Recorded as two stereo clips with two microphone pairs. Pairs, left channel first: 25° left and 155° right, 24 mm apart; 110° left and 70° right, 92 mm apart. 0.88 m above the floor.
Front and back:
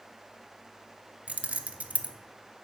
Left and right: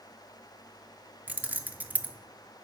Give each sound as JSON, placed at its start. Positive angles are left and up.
{"t": 1.3, "sound": "keys jangling", "azimuth_deg": -145, "distance_m": 0.6}